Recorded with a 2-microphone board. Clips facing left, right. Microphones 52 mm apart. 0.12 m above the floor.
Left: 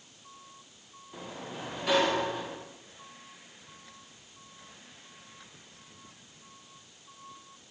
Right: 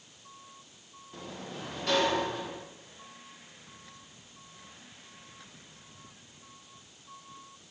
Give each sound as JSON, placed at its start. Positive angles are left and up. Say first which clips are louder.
{"t": 1.1, "sound": "a sliding door", "louder": "left 1 dB", "side_deg": 15, "distance_m": 8.5}